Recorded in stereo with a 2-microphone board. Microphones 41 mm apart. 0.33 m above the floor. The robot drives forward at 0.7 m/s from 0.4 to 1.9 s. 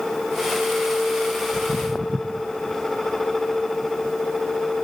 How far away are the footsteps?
About 0.6 m.